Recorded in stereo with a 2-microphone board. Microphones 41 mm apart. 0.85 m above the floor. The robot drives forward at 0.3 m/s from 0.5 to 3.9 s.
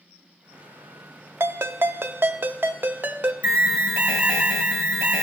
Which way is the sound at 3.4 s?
30° right (ahead or behind).